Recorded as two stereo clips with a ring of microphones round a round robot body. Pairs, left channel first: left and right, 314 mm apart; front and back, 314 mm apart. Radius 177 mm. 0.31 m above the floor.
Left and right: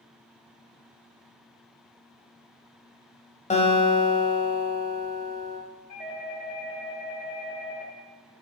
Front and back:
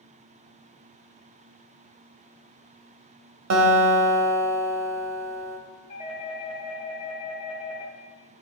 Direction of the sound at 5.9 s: 50° left.